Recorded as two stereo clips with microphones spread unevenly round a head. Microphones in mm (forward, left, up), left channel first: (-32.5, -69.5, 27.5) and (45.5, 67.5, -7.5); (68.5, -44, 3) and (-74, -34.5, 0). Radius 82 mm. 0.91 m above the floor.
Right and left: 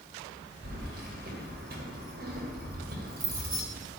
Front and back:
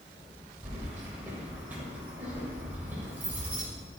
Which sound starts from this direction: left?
Keys jangling, at 0.6 s.